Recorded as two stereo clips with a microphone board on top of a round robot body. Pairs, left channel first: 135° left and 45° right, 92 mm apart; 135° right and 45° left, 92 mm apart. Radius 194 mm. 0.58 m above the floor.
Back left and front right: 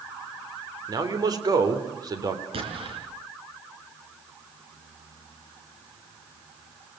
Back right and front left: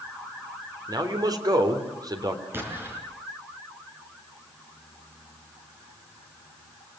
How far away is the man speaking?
About 3 m.